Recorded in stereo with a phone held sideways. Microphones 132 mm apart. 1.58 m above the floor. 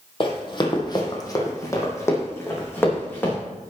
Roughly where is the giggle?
I don't hear a giggle.